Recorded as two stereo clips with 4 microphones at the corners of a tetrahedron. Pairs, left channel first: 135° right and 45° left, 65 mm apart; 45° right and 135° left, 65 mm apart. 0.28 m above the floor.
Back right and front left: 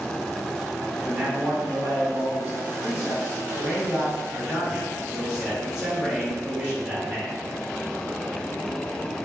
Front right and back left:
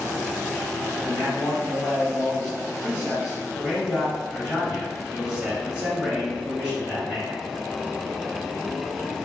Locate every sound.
1.0 s a man speaking: 90° left, 1.3 m